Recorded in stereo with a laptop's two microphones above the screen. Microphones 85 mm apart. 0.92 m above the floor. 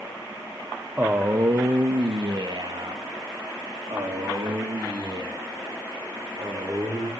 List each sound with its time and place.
1.0 s a man speaking: 20° right (ahead or behind), 0.6 m; by 7.1 s 55° right (ahead or behind), 3 m